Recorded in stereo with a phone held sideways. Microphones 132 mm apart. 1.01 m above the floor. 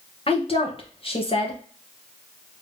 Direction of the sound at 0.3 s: 45° left (ahead or behind).